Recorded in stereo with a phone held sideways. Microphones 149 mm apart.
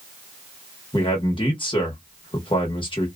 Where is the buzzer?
No buzzer in this recording.